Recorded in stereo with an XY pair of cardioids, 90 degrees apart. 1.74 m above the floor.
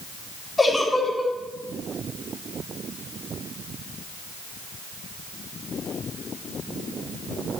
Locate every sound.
0.6 s a giggle: 20° left, 3.5 m